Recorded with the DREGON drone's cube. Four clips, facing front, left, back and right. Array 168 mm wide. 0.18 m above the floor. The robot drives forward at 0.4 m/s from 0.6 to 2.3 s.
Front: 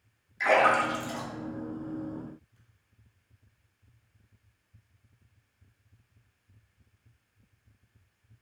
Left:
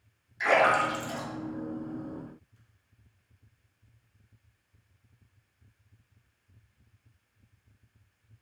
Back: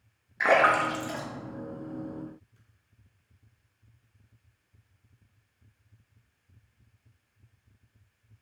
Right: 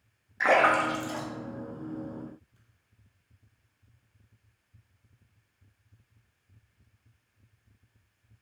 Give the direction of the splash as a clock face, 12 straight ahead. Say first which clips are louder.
Right 1 dB, back 1 dB; 5 o'clock.